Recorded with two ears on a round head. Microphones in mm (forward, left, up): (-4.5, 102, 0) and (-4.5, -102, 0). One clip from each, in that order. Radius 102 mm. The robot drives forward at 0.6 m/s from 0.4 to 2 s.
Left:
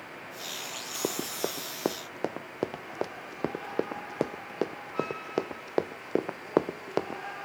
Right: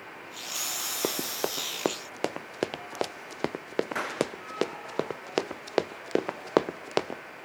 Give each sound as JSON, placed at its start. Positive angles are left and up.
{"t": 1.0, "sound": "running footsteps", "side_deg": -80}